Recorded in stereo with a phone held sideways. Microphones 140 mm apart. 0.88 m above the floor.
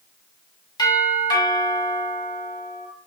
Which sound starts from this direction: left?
A doorbell, at 0.8 s.